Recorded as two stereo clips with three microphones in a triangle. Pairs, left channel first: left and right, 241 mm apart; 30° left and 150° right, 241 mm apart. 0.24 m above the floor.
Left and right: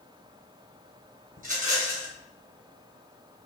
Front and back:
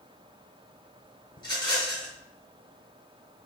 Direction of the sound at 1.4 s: 40° right.